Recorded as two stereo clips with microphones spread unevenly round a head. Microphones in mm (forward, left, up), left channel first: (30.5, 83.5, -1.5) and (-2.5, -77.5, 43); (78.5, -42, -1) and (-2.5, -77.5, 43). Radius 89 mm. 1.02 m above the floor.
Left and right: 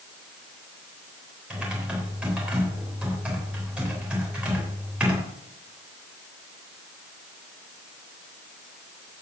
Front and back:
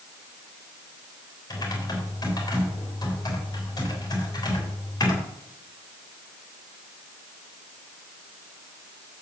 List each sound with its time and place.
1.5 s typing on a keyboard: 20° right, 3.5 m